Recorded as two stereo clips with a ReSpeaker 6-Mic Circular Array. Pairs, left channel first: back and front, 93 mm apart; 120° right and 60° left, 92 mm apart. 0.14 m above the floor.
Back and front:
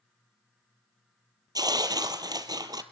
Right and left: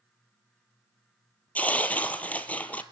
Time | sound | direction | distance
1.6 | tearing paper | 45° right | 1.0 m